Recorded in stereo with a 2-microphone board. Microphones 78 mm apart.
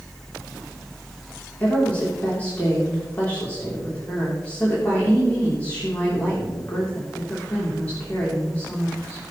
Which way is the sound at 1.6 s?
20° left (ahead or behind).